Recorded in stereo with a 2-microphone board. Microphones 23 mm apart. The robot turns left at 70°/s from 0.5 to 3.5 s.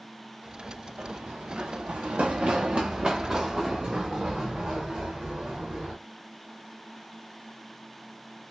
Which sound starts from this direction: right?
Running footsteps, at 1.0 s.